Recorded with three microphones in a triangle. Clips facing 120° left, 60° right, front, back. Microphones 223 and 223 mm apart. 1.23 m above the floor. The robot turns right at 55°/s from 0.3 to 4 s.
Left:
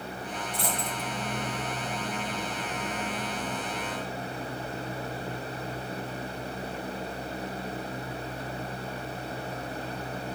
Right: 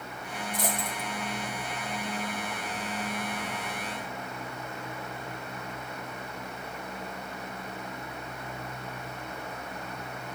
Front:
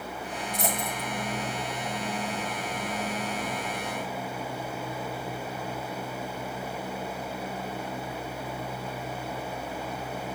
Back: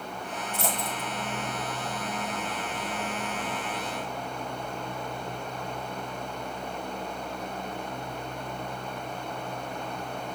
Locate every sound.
0.5 s a dropped coin: 70° right, 1.6 m; by 1.1 s 35° right, 1.6 m